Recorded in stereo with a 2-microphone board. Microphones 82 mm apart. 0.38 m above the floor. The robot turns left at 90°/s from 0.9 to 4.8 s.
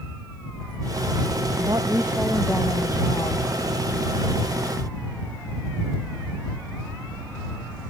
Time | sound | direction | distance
1.6 | a woman speaking | 120° right | ?